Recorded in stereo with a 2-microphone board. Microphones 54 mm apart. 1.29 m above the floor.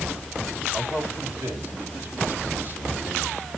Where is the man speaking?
50° right (ahead or behind), 7 m; by 3.5 s 35° right (ahead or behind), 5 m.